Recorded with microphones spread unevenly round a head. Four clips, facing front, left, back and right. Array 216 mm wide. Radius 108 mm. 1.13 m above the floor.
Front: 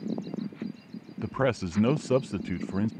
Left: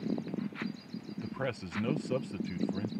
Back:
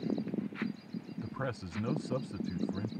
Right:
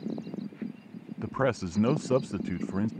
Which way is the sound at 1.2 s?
25° right.